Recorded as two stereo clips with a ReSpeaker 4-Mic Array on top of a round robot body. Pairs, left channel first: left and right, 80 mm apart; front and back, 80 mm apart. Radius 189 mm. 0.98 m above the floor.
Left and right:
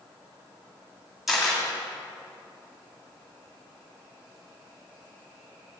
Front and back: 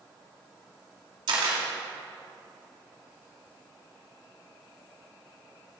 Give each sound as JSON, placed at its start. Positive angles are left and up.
{"t": 1.3, "sound": "a camera shutter", "azimuth_deg": 180, "distance_m": 2.0}